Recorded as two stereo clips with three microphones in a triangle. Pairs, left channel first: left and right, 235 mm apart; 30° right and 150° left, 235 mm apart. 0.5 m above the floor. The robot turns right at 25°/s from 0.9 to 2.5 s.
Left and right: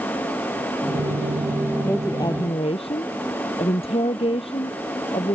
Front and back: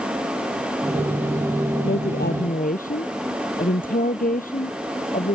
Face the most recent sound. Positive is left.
turn(degrees=25)